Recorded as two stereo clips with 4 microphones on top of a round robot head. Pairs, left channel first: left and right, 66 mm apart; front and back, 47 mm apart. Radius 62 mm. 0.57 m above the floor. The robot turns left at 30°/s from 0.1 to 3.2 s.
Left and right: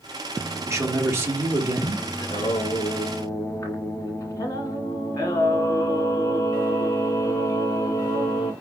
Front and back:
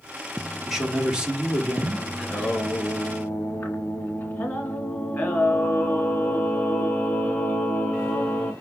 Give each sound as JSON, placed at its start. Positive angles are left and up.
{"t": 0.7, "sound": "a man speaking", "azimuth_deg": -95, "distance_m": 1.4}
{"t": 2.2, "sound": "singing", "azimuth_deg": 80, "distance_m": 1.3}